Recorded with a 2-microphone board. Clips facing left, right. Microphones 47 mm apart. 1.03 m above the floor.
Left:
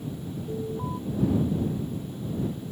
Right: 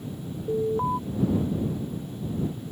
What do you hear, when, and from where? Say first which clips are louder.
0.5 s an alarm: right 9 dB; 65° right (ahead or behind)